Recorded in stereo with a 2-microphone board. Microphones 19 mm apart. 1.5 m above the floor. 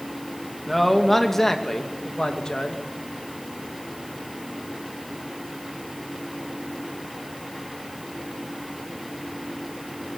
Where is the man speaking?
5° left (ahead or behind), 2.5 m; by 2.8 s 50° left (ahead or behind), 2.5 m.